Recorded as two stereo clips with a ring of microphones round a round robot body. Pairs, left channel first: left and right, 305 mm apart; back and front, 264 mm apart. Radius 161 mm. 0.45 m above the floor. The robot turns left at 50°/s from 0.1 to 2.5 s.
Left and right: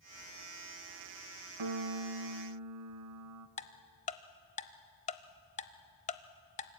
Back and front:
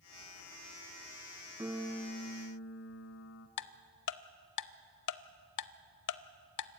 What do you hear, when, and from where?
1.6 s a piano: 80° right, 0.8 m; by 3.5 s 125° right, 0.8 m
3.6 s ticking: 160° left, 0.6 m